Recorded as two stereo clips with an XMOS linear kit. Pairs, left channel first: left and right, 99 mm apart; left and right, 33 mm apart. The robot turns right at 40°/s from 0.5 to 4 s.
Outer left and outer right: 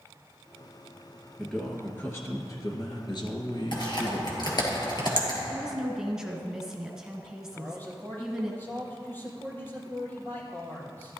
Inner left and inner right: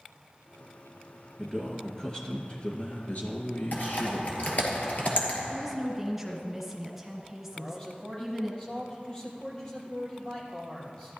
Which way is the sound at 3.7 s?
55° left (ahead or behind).